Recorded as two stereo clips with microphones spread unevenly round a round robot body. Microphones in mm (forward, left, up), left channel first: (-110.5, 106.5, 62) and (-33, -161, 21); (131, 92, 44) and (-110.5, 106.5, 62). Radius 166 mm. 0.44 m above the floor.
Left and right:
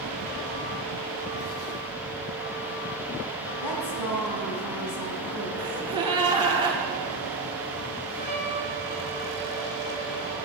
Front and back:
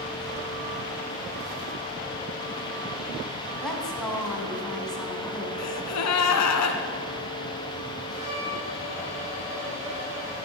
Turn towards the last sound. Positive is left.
turn(degrees=100)